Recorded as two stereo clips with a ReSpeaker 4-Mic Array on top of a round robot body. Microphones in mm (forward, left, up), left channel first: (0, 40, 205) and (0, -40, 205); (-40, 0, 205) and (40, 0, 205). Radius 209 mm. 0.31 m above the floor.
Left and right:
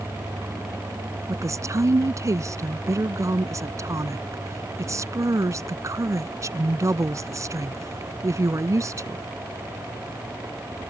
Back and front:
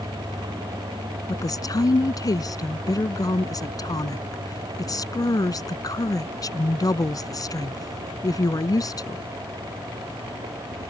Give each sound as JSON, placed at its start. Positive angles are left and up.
{"t": 1.3, "sound": "a woman speaking", "azimuth_deg": -140}